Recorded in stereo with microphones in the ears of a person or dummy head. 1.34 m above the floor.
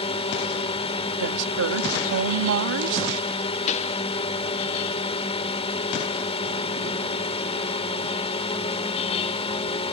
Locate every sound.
0.0 s a drone: 25° left (ahead or behind)
1.2 s a woman speaking: 70° right (ahead or behind)
3.7 s a pop: 40° left (ahead or behind)